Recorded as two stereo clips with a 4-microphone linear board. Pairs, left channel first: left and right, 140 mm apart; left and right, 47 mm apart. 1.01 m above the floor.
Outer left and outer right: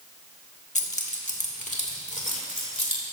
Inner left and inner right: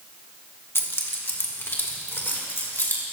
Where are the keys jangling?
60° left (ahead or behind), 1.2 m; by 3.0 s 55° left (ahead or behind), 2.5 m.